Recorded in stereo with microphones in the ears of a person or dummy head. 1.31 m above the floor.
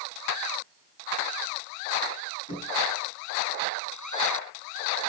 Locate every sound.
2.5 s knocking: 25° left (ahead or behind), 6.5 m